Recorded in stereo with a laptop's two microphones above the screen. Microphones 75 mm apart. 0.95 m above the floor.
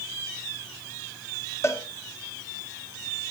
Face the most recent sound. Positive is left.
turn(degrees=40)  # may be behind; listen again after turning